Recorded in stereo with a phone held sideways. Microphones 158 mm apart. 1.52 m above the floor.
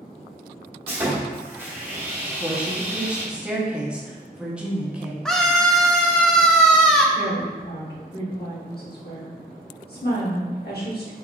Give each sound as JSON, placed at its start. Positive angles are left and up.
{"t": 0.9, "sound": "sawing", "side_deg": -15, "distance_m": 1.4}
{"t": 2.2, "sound": "a woman speaking", "side_deg": -5, "distance_m": 0.9}
{"t": 5.2, "sound": "a scream", "side_deg": 5, "distance_m": 0.7}
{"t": 7.2, "sound": "a woman speaking", "side_deg": 75, "distance_m": 1.2}